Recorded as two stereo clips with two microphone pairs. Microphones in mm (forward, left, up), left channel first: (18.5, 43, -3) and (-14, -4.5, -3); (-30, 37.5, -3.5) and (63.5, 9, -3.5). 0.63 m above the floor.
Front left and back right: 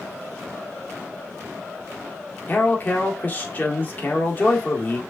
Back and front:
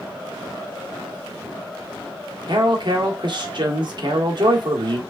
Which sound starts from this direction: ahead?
A man speaking, at 2.5 s.